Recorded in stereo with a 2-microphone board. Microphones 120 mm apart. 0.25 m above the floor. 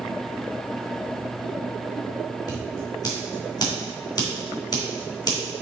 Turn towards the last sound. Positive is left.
turn(degrees=35)  # may be behind; listen again after turning